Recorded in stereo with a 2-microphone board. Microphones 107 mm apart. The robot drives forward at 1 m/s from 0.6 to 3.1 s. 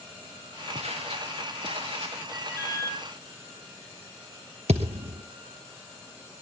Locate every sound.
0.8 s footsteps: 70° right (ahead or behind), 3.5 m; by 2.2 s 65° right (ahead or behind), 4.5 m
2.3 s an alarm: 25° right (ahead or behind), 7.5 m; by 3.0 s 30° right (ahead or behind), 7 m
4.7 s a thud: 80° right, 2 m